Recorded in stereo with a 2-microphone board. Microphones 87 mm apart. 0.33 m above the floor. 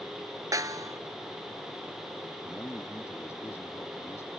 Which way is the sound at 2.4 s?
30° left (ahead or behind).